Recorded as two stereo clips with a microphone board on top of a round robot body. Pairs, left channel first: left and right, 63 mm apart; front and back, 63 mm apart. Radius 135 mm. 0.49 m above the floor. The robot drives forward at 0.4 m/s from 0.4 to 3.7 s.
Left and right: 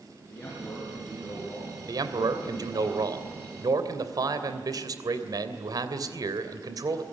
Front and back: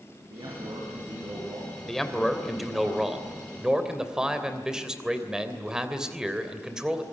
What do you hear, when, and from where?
0.3 s a man speaking: 160° left, 8.5 m
1.9 s a man speaking: 85° right, 3 m; by 7.0 s 100° right, 3 m